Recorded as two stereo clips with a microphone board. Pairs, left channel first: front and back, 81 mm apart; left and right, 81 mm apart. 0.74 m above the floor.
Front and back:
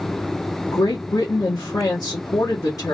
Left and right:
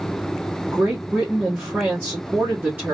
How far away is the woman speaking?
About 1.7 m.